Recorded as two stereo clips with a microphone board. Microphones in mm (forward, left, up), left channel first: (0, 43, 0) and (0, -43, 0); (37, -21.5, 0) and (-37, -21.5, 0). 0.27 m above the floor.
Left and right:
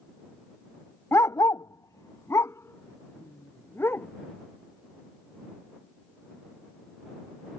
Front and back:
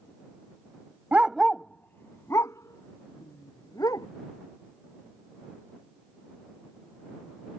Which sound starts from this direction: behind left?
A dog barking, at 1.1 s.